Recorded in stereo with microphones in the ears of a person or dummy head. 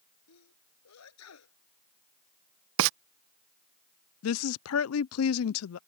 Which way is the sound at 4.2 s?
70° left (ahead or behind).